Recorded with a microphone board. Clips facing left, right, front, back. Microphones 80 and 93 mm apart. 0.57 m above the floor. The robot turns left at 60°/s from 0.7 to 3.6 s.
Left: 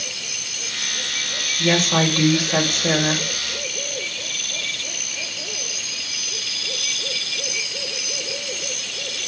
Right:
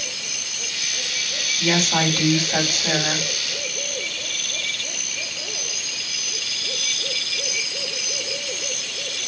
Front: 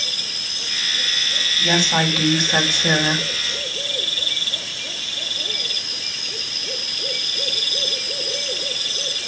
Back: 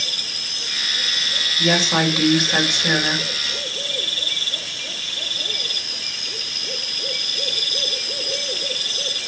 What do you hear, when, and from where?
1.6 s a woman speaking: 145° left, 3 m; by 3.2 s 50° left, 3 m